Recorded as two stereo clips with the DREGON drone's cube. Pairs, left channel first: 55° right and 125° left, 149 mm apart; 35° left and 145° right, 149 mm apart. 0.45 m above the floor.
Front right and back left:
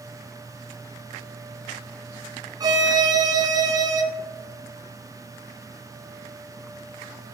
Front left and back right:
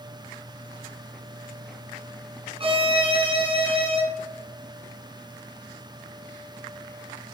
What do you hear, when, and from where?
2.6 s a violin: straight behind, 0.5 m